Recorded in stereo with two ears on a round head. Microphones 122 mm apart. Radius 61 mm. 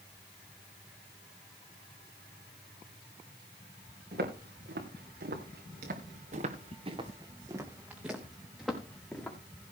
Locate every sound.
4.1 s footsteps: 75° right (ahead or behind), 4.5 m; by 9.4 s 10° left (ahead or behind), 4.5 m